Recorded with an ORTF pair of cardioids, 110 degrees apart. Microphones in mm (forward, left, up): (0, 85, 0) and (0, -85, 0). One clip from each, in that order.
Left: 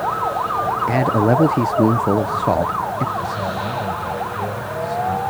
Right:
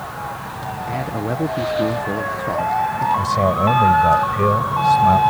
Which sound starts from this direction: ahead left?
A man speaking, at 0.9 s.